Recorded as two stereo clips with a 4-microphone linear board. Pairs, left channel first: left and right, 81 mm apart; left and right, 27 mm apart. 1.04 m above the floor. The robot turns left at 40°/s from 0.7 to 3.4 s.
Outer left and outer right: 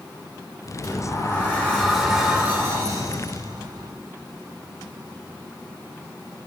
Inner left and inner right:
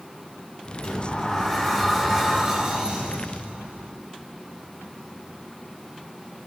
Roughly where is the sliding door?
Ahead left.